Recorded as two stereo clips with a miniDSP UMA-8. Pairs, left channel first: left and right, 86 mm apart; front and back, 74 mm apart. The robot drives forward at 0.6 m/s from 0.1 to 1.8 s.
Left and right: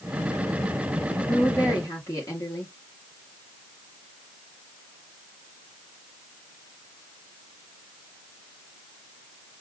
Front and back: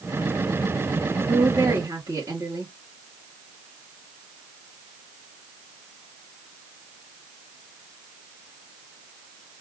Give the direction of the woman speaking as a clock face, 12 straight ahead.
8 o'clock.